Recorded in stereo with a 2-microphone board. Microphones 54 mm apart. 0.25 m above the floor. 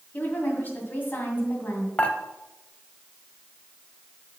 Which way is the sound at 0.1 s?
35° left (ahead or behind).